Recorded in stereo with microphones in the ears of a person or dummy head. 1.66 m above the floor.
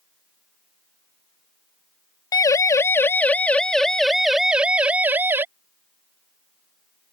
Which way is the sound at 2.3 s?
20° left (ahead or behind).